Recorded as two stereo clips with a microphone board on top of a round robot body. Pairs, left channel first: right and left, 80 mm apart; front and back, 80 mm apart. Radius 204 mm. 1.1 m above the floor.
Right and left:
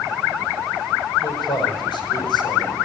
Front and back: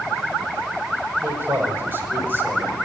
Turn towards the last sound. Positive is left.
turn(degrees=-115)